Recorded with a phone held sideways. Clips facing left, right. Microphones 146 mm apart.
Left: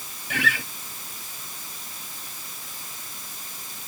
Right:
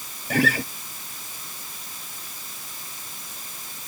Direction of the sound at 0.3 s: 40° right (ahead or behind).